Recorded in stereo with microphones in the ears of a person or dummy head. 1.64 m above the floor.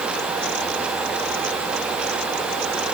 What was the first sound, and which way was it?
Only background noise.